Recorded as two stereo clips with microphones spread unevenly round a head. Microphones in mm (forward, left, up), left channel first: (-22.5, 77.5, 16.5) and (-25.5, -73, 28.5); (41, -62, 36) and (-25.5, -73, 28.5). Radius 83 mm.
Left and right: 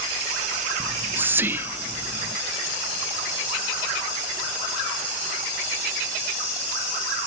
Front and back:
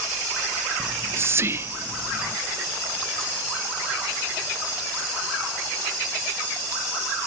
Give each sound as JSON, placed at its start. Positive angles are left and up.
{"t": 0.8, "sound": "whispering", "azimuth_deg": -165, "distance_m": 0.6}